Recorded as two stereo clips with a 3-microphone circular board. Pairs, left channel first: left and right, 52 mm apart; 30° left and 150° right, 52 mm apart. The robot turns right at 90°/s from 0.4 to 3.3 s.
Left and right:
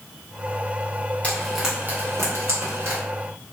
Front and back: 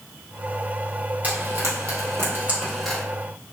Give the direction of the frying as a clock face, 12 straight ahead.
7 o'clock.